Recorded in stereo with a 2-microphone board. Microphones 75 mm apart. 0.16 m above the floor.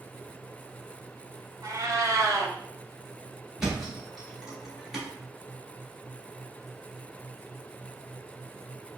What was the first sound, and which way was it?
A cat meowing, 45° right (ahead or behind).